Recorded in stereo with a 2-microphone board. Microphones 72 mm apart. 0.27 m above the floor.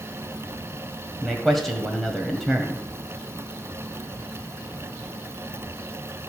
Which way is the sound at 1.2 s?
5° left (ahead or behind).